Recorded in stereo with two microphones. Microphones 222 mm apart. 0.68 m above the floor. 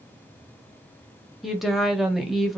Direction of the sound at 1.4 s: Centre (ahead or behind).